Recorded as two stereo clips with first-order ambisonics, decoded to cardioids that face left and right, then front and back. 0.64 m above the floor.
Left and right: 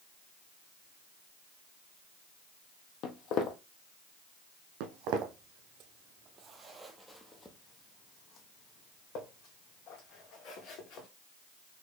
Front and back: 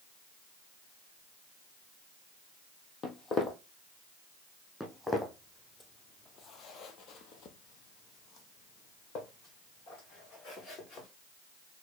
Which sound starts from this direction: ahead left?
Footsteps, at 3.0 s.